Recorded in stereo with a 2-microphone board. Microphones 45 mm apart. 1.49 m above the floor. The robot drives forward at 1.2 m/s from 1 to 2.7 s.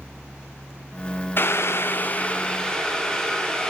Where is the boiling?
50° left (ahead or behind), 0.6 m; by 3.7 s 20° left (ahead or behind), 1.4 m.